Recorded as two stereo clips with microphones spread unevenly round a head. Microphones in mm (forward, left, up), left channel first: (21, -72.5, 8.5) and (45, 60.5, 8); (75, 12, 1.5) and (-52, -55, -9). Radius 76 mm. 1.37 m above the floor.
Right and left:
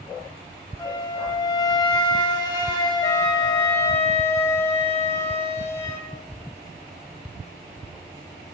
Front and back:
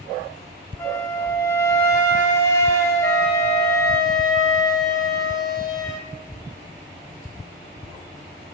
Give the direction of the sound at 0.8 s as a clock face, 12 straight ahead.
1 o'clock.